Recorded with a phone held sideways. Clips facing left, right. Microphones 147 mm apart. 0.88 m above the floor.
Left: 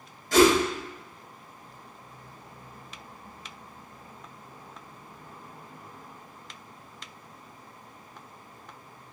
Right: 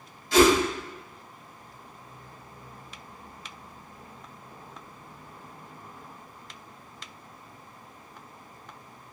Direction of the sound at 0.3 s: 45° left (ahead or behind).